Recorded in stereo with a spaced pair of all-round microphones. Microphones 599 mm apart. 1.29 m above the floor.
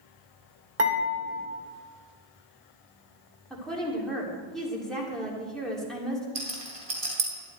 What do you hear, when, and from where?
0.8 s dishes clattering: 75° right (ahead or behind), 3.5 m
3.5 s a woman speaking: centre (ahead or behind), 3 m
6.3 s a rattle: 60° right (ahead or behind), 2.5 m